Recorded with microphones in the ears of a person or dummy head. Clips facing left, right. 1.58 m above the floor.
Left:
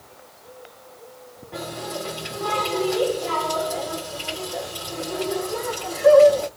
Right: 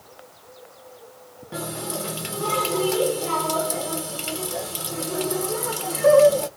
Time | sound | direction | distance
1.5 | a running tap | 40° right (ahead or behind) | 0.8 m